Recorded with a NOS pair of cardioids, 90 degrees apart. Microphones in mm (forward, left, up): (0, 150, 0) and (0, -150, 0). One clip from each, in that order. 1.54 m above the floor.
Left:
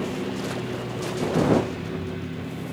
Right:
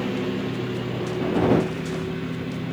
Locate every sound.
0.0 s a lawn mower: 25° right